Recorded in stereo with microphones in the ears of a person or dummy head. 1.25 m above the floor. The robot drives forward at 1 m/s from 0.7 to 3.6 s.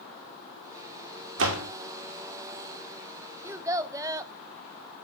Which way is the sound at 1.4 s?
75° right (ahead or behind).